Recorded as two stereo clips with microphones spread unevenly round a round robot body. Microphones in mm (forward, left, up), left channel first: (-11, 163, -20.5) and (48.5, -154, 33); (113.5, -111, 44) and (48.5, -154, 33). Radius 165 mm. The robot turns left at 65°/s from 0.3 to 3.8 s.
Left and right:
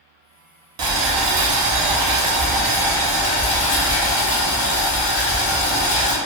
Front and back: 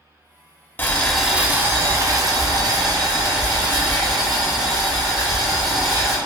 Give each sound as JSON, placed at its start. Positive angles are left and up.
{"t": 0.8, "sound": "boiling", "azimuth_deg": -35, "distance_m": 0.7}